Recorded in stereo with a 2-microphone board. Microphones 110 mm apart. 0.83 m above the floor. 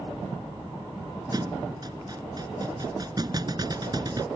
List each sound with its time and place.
1.3 s a thud: 40° right (ahead or behind)